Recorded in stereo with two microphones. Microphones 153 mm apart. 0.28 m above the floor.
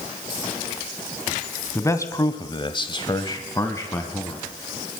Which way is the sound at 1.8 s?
15° left (ahead or behind).